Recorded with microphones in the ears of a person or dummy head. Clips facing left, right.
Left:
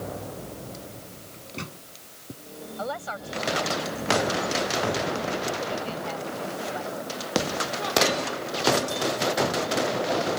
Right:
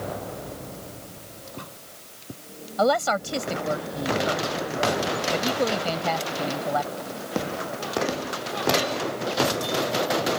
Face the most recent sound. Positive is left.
turn(degrees=-90)